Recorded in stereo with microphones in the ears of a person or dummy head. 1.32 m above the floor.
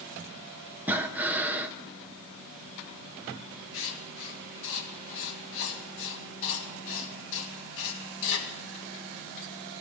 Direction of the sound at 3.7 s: 75° left (ahead or behind).